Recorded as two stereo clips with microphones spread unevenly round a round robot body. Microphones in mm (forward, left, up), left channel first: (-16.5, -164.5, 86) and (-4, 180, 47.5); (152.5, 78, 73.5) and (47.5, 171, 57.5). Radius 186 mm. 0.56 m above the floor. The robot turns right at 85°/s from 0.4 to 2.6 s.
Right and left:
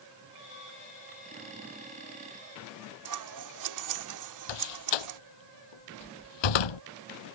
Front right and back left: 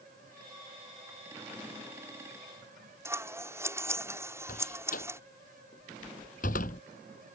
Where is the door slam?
100° right.